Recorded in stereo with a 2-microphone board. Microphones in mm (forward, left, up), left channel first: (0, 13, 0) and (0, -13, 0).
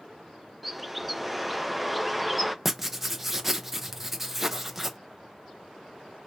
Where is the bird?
5° right (ahead or behind), 0.7 m.